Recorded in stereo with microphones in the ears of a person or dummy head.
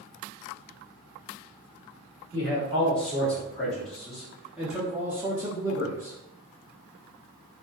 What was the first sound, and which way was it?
A man speaking, 5° left (ahead or behind).